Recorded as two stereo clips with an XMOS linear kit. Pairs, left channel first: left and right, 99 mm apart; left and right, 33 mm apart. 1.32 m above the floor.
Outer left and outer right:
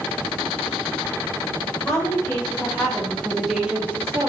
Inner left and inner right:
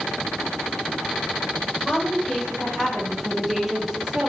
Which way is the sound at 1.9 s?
30° left (ahead or behind).